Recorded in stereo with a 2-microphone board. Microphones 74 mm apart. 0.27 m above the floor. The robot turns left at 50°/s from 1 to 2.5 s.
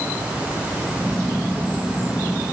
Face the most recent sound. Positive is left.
No sound to turn to.